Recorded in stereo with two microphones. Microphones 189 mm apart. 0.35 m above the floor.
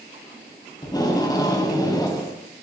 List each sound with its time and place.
0.8 s tape being pulled: 20° left (ahead or behind), 3 m